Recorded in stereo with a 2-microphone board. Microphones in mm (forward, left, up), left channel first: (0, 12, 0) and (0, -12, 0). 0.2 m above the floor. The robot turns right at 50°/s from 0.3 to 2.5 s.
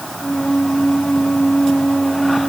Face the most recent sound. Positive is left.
No sound to turn to.